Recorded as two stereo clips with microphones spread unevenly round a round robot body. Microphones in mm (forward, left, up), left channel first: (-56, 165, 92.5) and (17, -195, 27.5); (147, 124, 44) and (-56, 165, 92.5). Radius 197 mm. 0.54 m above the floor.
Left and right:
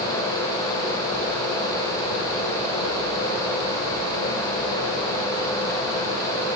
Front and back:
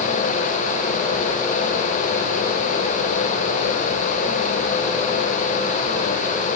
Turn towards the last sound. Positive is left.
No sound to turn to.